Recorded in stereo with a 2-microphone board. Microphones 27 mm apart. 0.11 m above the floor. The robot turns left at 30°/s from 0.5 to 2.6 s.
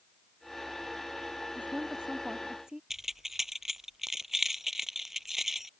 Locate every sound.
1.6 s a woman speaking: 125° right; by 2.8 s 160° right
2.9 s keys jangling: 10° right (ahead or behind)